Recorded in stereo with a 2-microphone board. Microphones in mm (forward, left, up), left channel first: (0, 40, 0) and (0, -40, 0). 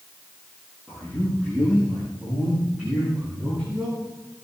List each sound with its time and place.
0.9 s a man speaking: 10° right (ahead or behind), 9 m